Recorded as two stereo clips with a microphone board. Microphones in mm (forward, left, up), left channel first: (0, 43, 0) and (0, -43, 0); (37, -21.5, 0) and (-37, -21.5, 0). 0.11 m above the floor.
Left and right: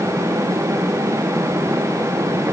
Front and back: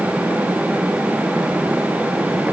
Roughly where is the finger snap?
I don't hear a finger snap.